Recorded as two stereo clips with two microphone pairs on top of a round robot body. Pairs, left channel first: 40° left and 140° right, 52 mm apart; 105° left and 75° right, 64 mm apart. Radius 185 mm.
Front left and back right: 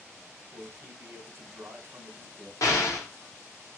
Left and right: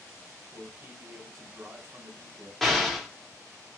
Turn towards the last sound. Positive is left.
turn(degrees=20)